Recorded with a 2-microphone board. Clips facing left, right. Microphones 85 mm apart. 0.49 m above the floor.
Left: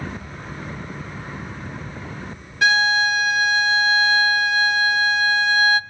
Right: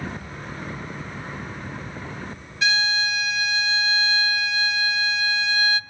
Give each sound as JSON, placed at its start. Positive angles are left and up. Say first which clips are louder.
{"t": 2.6, "sound": "a violin", "louder": "left 6 dB", "side_deg": 55, "distance_m": 0.6}